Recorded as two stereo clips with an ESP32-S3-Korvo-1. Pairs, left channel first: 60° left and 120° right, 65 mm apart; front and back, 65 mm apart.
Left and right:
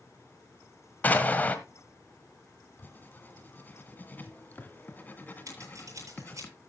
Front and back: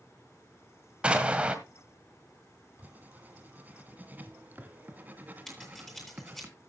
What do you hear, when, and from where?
1.0 s an explosion: 115° left, 1.6 m
2.8 s writing: 120° left, 1.7 m
5.5 s scissors: 85° right, 8 m